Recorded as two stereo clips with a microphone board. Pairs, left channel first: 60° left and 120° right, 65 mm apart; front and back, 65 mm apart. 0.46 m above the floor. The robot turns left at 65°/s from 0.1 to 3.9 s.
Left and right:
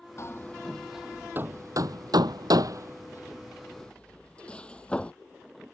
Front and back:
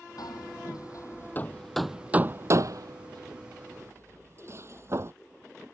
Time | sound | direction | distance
0.2 | hammering | 15° left | ?